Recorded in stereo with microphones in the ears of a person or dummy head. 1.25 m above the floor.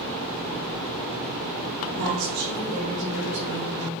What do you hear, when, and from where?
1.9 s a woman speaking: 60° right (ahead or behind), 2.5 m; by 3.9 s 50° right (ahead or behind), 3.5 m